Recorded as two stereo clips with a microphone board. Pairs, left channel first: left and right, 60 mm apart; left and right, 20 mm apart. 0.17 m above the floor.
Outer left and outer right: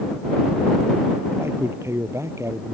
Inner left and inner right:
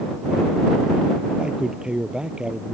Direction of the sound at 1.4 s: 40° right (ahead or behind).